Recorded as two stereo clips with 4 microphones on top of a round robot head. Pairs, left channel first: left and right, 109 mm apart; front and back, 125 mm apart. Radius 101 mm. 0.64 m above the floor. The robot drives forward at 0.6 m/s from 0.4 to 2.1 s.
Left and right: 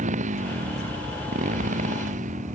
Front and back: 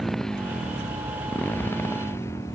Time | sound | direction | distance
0.0 | a motorcycle | 90° right | ?